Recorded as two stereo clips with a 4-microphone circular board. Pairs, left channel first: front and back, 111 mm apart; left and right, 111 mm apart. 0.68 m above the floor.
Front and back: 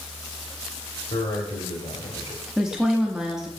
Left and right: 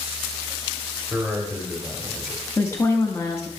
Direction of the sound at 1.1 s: 5° right.